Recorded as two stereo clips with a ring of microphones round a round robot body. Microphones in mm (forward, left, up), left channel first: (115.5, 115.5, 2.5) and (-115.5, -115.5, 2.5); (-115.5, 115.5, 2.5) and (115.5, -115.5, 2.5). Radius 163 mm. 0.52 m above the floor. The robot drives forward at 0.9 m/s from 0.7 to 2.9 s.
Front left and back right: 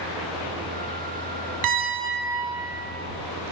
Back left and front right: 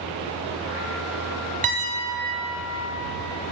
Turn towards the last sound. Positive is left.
turn(degrees=-150)